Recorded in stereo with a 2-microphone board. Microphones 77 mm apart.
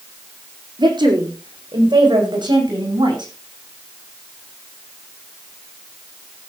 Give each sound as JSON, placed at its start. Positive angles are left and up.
{"t": 0.8, "sound": "a woman speaking", "side_deg": -70, "distance_m": 6.0}